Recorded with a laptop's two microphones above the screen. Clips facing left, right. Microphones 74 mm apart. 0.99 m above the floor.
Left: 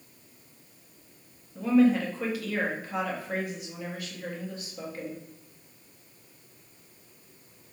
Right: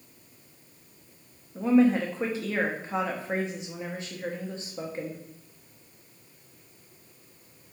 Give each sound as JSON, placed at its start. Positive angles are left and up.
{"t": 1.6, "sound": "a woman speaking", "side_deg": -25, "distance_m": 0.8}